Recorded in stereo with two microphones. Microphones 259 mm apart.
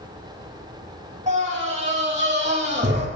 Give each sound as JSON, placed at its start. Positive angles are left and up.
{"t": 1.3, "sound": "a scream", "side_deg": -30, "distance_m": 10.0}